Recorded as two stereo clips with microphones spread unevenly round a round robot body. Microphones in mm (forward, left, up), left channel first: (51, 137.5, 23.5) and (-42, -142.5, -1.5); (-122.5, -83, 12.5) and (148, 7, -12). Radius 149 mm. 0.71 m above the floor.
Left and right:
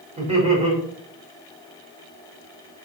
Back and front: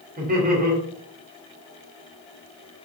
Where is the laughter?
40° right, 3 m.